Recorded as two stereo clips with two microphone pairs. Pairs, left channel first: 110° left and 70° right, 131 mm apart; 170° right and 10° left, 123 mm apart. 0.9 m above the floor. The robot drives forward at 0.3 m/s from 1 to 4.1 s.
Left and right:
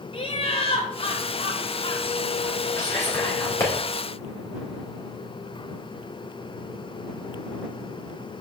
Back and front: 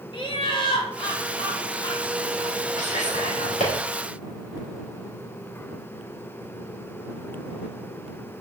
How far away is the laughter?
About 2 m.